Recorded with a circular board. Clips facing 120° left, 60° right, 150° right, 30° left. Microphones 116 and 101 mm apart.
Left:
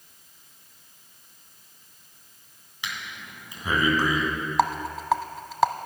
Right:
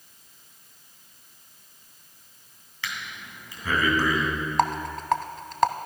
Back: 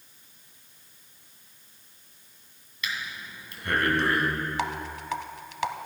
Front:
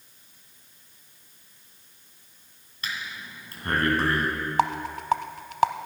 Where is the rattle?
35° left, 0.7 m.